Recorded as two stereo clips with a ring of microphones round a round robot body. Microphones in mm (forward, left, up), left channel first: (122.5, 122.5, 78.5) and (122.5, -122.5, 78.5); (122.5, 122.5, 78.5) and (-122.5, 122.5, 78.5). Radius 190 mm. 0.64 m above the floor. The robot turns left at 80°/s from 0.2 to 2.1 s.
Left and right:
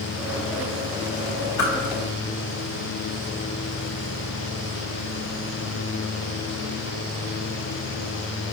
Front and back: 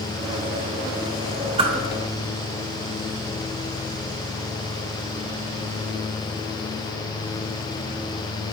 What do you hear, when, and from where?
1.6 s a whoosh: 110° left, 1.1 m; by 1.7 s 100° left, 1.1 m